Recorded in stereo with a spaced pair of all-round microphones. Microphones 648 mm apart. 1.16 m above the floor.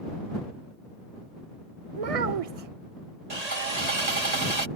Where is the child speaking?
60° right (ahead or behind).